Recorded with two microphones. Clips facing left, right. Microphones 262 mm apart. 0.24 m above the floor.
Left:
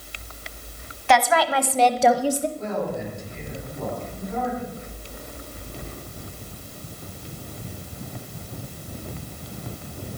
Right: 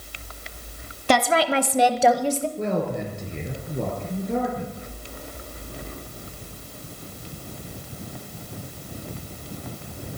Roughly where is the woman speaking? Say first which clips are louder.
Right 1 dB; right.